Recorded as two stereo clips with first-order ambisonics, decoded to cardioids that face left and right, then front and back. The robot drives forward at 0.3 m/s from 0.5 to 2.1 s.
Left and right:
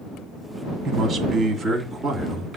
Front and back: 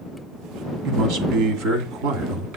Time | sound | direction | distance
0.8 | a man speaking | 160° right | 2 m